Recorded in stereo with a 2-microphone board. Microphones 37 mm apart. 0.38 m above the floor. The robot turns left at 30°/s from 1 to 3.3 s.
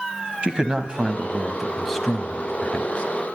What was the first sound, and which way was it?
A man speaking, 155° right.